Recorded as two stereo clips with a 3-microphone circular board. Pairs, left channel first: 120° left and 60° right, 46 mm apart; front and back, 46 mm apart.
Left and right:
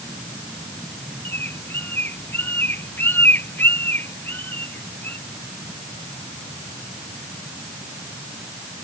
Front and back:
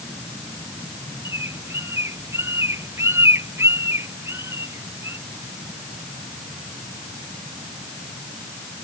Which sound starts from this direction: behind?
A bird, at 1.2 s.